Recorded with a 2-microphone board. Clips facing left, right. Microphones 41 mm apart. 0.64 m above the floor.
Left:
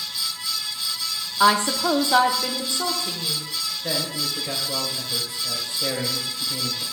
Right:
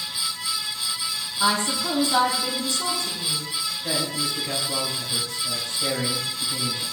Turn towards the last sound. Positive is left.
turn(degrees=25)  # may be behind; listen again after turning